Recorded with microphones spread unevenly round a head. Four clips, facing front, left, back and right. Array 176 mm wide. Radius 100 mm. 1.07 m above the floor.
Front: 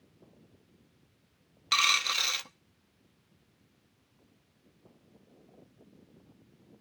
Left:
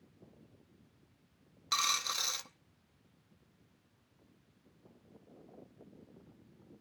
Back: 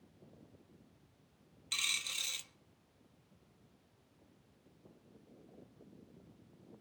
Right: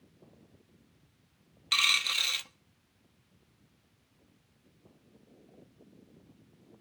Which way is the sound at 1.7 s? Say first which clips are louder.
Right 2 dB, front 17 dB; 5° left.